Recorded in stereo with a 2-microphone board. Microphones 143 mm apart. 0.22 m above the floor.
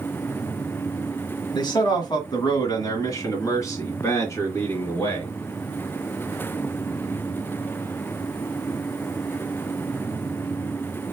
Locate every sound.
1.5 s a man speaking: 35° left (ahead or behind), 1.6 m; by 5.3 s 20° left (ahead or behind), 3 m